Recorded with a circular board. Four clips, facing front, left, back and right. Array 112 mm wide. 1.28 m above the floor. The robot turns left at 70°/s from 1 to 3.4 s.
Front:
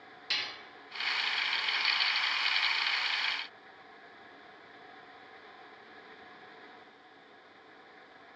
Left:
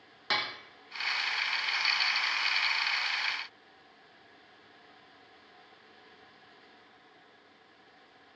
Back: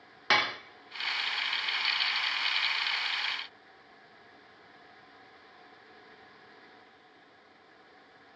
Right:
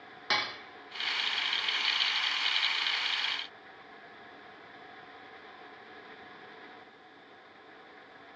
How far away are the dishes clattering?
About 0.8 m.